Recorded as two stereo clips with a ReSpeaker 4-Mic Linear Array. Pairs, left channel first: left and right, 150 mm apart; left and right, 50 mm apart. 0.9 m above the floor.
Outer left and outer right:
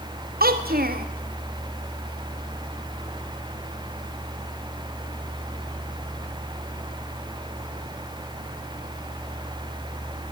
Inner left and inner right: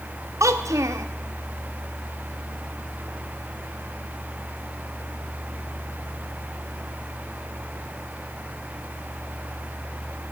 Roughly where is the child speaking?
Right.